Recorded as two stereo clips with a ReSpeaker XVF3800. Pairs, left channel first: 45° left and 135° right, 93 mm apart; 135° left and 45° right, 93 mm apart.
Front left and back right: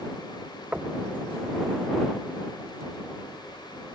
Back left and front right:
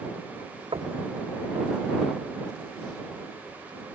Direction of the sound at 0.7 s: 60° right.